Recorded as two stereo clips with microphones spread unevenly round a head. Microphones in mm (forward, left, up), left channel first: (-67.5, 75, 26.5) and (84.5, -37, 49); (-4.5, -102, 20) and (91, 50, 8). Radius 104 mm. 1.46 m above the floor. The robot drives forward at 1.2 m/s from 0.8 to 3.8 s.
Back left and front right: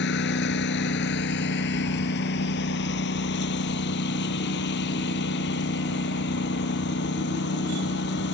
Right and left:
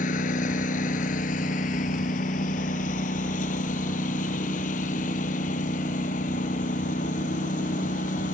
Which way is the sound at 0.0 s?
175° right.